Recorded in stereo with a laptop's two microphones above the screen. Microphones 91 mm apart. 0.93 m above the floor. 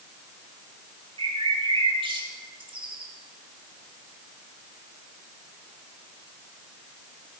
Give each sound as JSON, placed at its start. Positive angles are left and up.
{"t": 1.2, "sound": "a bird", "side_deg": -75, "distance_m": 1.8}